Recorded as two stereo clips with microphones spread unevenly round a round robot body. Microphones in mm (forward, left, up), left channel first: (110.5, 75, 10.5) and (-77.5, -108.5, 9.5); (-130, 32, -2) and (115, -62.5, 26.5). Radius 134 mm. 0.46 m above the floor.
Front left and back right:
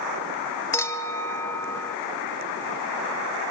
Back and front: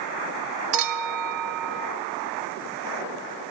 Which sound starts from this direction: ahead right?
A clink, at 0.7 s.